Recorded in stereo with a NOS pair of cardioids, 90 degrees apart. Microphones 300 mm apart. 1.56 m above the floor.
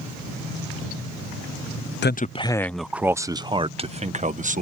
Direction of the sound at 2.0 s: 40° left.